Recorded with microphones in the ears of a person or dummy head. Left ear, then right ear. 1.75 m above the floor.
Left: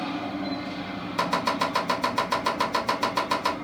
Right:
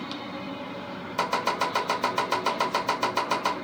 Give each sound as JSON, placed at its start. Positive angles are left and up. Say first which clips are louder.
{"t": 1.2, "sound": "chopping", "louder": "left 1 dB", "side_deg": 0, "distance_m": 1.7}